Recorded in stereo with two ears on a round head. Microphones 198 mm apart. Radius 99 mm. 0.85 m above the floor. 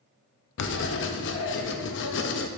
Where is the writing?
55° left (ahead or behind), 0.6 m.